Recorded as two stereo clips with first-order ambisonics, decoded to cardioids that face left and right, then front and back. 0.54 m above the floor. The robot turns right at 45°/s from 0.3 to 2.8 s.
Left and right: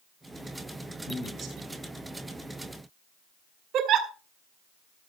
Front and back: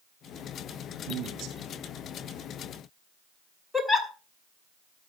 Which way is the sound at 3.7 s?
85° right.